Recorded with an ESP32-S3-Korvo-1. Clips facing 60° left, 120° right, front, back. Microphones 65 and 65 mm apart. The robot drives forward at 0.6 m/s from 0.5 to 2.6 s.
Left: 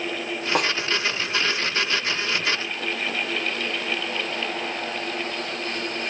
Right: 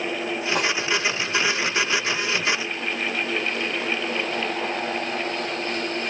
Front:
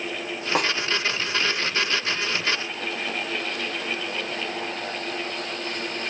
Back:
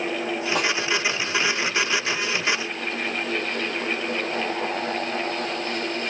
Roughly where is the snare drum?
Ahead left.